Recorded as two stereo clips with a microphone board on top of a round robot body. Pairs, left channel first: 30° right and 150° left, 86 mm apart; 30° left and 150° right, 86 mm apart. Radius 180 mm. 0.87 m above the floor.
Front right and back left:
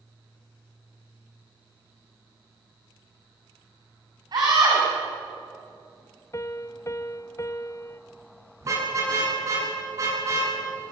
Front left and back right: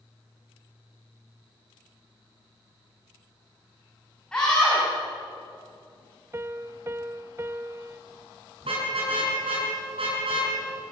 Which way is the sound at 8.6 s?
155° right.